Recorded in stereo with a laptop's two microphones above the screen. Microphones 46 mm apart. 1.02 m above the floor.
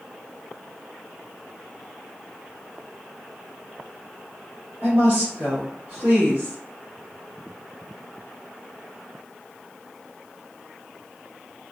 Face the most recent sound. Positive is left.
turn(degrees=-40)  # may be behind; listen again after turning